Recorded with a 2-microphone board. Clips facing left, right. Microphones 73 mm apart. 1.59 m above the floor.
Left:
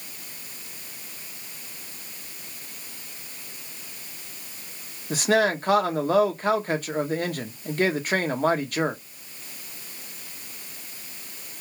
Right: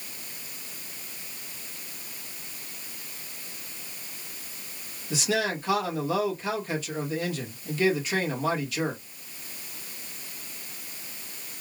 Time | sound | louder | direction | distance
5.1 | a man speaking | left 6 dB | 50° left (ahead or behind) | 0.8 m